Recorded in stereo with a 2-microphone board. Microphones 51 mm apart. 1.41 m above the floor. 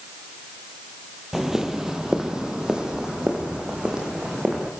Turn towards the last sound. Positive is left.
turn(degrees=-15)  # may be behind; listen again after turning